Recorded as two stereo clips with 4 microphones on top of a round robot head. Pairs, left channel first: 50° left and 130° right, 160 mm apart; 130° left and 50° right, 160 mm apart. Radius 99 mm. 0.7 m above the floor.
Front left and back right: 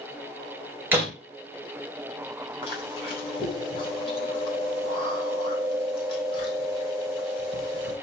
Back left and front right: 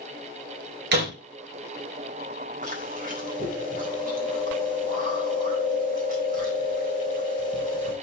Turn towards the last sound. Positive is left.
turn(degrees=-10)